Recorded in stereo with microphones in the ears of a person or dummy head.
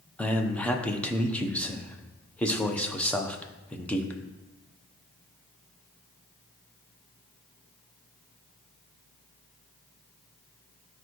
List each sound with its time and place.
0.2 s a man speaking: 5° left (ahead or behind), 0.9 m